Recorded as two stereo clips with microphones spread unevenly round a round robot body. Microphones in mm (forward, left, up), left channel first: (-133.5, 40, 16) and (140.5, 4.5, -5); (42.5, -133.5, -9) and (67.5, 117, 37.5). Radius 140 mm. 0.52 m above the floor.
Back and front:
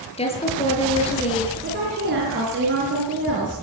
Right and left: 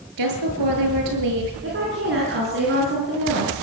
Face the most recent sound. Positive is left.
turn(degrees=40)